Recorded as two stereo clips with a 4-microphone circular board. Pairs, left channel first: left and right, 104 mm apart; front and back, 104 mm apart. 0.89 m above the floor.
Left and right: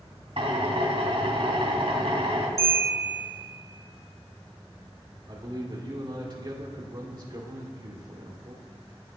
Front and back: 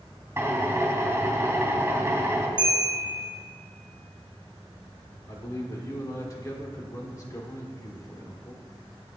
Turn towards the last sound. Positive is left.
turn(degrees=-50)